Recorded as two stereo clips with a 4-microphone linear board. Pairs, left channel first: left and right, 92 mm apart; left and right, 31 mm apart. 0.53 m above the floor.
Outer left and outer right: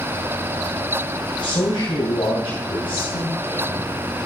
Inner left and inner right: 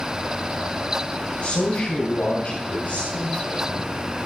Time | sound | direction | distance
1.4 | a man speaking | 60° left (ahead or behind) | 3 m